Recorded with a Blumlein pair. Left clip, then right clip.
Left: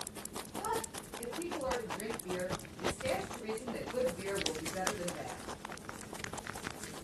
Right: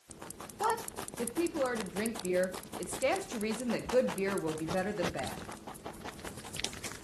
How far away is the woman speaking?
About 1.3 m.